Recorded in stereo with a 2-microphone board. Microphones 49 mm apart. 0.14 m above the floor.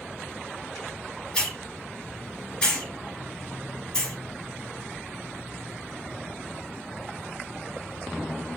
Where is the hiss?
20° left (ahead or behind), 1.8 m.